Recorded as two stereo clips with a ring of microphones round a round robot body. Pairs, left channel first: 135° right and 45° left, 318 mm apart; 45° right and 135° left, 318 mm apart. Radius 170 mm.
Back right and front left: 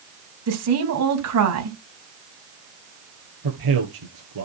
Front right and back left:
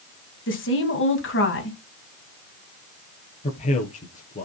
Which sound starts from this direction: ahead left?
A man speaking, at 3.4 s.